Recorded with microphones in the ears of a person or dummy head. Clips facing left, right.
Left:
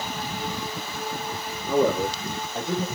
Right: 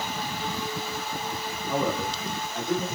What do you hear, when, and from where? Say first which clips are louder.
1.7 s a man speaking: left 6 dB; 60° left (ahead or behind), 1.8 m; by 2.9 s 15° left (ahead or behind), 1.3 m